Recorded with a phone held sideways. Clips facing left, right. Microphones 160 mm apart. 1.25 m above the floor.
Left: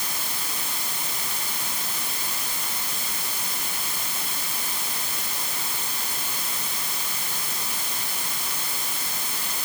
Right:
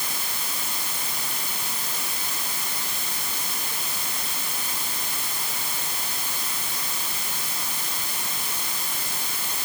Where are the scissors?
I don't hear scissors.